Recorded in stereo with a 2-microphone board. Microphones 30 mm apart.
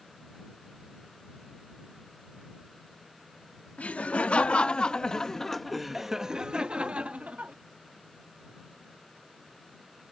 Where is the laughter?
50° left (ahead or behind); by 7.5 s 55° right (ahead or behind).